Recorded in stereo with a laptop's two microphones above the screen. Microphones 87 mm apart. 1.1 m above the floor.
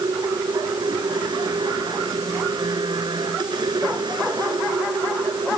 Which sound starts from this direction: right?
A machine running, at 0.0 s.